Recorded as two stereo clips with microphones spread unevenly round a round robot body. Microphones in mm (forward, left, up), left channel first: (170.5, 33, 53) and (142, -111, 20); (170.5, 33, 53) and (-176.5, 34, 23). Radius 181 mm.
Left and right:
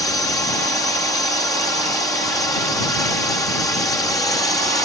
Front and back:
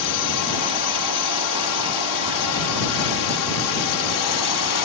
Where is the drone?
5° left.